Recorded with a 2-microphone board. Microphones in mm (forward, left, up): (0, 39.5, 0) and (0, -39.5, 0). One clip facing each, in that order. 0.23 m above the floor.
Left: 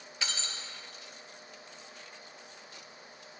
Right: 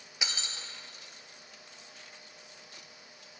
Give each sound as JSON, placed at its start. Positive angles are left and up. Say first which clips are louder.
{"t": 0.2, "sound": "breaking glass", "louder": "even", "side_deg": -15, "distance_m": 1.3}